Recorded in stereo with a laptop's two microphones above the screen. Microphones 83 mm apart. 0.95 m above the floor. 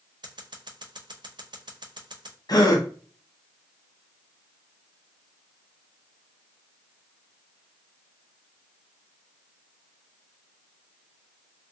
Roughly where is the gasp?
Left.